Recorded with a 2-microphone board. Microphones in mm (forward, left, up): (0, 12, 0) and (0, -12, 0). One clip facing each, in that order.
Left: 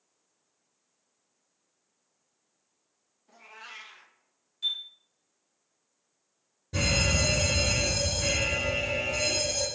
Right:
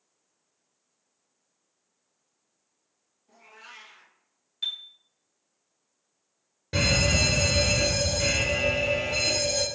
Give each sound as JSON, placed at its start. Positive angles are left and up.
{"t": 3.3, "sound": "a cat meowing", "side_deg": 25, "distance_m": 0.7}
{"t": 4.6, "sound": "a chime", "side_deg": -45, "distance_m": 0.8}
{"t": 6.7, "sound": "a fire alarm", "side_deg": -55, "distance_m": 1.7}